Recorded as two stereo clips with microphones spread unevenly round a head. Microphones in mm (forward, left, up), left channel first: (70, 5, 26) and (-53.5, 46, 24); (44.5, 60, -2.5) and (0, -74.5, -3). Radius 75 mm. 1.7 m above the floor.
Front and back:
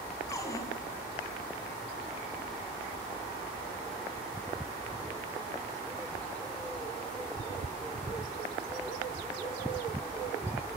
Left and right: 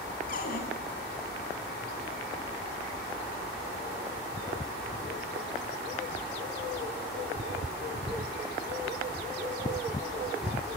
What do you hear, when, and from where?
0.3 s a cupboard door: 45° left, 7.5 m